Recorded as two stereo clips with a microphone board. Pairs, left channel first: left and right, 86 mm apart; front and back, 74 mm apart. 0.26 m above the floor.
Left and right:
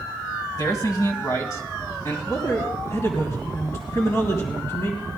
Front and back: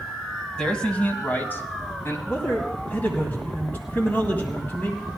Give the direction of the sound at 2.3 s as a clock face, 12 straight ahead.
10 o'clock.